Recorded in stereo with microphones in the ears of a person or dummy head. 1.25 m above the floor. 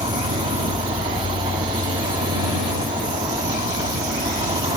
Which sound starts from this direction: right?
An insect, at 0.0 s.